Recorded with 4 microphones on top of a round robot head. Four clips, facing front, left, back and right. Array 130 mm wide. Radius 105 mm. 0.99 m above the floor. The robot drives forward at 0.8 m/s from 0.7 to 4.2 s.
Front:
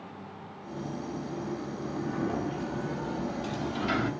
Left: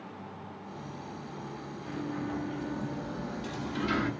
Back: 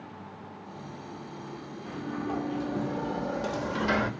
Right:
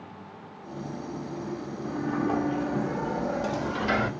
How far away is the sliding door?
About 1.3 m.